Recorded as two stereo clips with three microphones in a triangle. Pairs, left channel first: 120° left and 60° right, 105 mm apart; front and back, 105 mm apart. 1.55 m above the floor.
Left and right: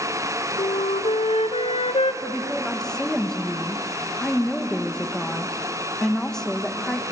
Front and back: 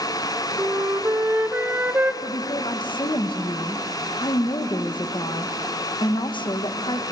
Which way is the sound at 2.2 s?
35° left.